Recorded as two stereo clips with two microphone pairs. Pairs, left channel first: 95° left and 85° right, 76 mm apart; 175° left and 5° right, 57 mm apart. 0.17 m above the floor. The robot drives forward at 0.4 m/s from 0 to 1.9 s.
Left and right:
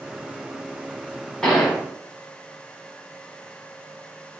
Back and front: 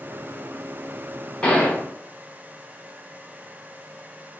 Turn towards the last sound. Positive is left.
turn(degrees=175)